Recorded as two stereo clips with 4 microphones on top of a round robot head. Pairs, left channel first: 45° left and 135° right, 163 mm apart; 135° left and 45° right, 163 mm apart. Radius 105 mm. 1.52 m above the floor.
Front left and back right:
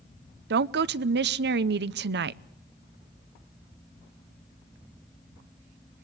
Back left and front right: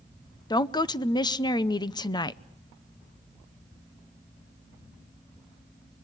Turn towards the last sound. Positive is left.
turn(degrees=-155)